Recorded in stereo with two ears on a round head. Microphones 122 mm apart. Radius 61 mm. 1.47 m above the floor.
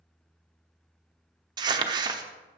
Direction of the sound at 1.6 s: 30° right (ahead or behind).